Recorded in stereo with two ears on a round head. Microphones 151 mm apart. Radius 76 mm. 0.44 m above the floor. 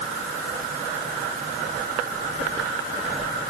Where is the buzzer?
No buzzer in this recording.